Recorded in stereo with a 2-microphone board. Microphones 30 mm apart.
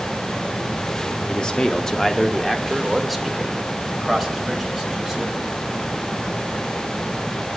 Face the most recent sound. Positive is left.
turn(degrees=-10)  # may be behind; listen again after turning